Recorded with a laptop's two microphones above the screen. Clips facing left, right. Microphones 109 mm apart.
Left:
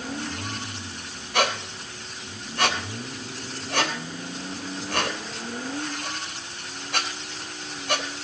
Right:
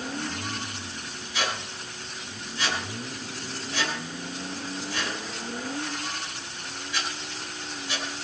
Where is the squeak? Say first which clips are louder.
Left 7 dB; 60° left (ahead or behind), 3.5 m.